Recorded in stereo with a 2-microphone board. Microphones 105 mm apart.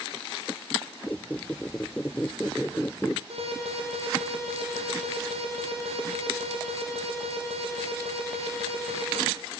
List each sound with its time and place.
1.1 s a squeak: 15° left (ahead or behind), 0.6 m
3.3 s an alarm: 70° right (ahead or behind), 6.5 m